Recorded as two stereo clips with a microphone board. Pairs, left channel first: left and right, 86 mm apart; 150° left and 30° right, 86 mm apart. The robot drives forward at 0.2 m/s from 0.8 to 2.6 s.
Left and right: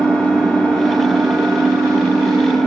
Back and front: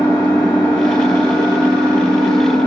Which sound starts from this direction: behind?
An engine running, at 0.0 s.